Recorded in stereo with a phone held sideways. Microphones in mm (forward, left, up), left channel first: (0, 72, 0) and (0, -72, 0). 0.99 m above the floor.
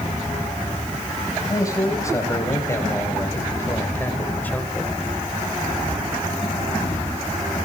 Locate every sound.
1.5 s a man speaking: 25° left (ahead or behind), 5 m; by 4.9 s 10° left (ahead or behind), 3 m